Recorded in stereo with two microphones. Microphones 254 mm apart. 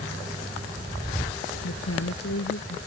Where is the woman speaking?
70° left (ahead or behind).